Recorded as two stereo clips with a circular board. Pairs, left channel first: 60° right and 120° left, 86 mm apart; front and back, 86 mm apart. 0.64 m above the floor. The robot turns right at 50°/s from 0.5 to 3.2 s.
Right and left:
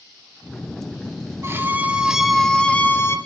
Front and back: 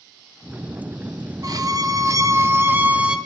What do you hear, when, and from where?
1.4 s a violin: 170° left, 0.6 m; by 3.2 s 105° right, 0.6 m